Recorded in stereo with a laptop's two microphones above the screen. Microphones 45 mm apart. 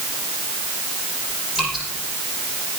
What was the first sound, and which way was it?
Dripping, 5° right (ahead or behind).